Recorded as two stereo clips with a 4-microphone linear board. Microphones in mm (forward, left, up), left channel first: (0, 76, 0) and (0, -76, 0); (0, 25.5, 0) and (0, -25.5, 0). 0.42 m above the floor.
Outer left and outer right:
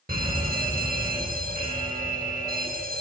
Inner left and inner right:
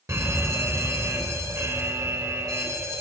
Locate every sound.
0.1 s a fire alarm: 70° right (ahead or behind), 6.5 m